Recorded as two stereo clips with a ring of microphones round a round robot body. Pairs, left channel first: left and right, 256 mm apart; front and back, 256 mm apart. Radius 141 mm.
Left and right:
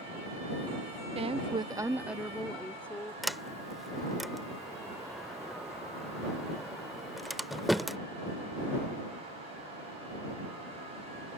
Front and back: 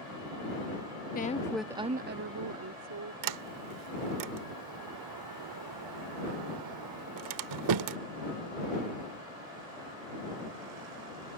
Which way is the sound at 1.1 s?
35° right.